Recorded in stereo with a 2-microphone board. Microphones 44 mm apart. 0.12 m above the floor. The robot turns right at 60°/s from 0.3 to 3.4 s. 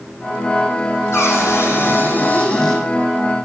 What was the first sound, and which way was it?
A cupboard door, 75° left.